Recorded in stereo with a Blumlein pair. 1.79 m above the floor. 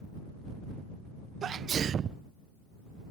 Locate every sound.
1.4 s a sneeze: 25° right